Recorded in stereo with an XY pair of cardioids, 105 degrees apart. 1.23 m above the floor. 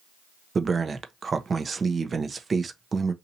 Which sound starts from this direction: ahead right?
A man speaking, at 0.6 s.